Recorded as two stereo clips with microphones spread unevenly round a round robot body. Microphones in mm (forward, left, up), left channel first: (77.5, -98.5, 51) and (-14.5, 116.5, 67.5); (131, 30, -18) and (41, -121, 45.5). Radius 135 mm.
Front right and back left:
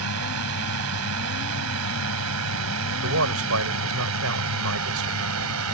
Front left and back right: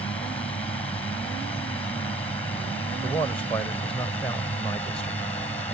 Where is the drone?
135° left.